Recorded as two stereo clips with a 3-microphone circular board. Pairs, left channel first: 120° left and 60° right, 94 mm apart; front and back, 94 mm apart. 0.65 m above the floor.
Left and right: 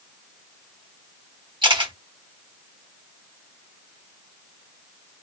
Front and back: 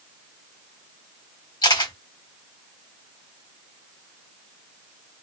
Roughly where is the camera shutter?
Ahead right.